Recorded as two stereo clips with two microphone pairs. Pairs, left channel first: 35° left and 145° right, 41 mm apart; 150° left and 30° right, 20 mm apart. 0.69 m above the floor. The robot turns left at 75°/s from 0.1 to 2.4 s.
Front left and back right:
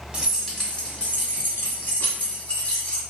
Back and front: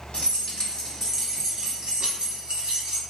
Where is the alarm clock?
I don't hear an alarm clock.